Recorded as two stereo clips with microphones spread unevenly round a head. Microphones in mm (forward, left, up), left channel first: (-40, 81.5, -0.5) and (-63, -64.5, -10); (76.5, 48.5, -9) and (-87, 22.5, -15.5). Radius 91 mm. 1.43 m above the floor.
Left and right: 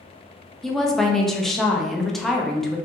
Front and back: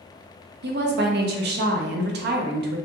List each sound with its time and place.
0.6 s a woman speaking: 170° left, 0.6 m